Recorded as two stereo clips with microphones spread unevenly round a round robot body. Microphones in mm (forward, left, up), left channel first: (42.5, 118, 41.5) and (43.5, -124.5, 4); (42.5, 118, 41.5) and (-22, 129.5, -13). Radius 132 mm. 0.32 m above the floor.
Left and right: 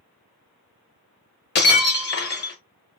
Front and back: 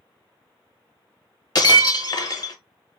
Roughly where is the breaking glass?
Ahead left.